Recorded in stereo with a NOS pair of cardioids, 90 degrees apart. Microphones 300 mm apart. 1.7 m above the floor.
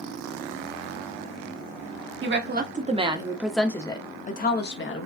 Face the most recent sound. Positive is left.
turn(degrees=45)